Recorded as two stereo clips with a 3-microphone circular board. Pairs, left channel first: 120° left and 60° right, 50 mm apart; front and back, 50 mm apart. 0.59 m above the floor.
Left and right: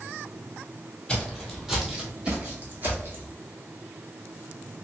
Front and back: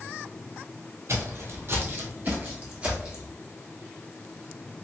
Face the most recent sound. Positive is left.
turn(degrees=-105)